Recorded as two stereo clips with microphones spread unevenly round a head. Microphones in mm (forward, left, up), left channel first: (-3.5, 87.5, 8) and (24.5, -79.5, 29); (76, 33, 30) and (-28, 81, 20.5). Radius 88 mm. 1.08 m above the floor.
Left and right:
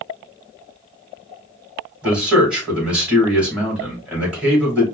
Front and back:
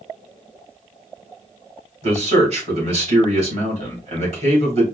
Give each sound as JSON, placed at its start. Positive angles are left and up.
{"t": 2.0, "sound": "a man speaking", "azimuth_deg": -165, "distance_m": 2.5}